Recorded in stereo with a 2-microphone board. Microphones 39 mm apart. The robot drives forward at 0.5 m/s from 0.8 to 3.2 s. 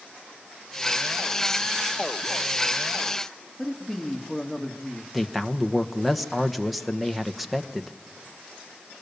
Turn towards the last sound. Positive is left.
turn(degrees=-5)  # may be behind; listen again after turning